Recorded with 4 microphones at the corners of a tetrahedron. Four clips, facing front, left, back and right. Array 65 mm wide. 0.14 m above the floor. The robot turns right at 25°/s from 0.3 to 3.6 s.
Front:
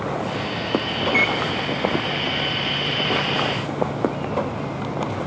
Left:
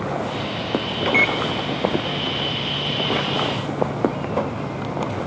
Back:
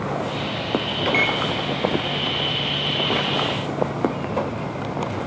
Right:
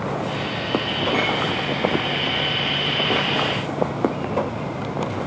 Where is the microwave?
130° left, 2 m; by 1.4 s 140° left, 2 m.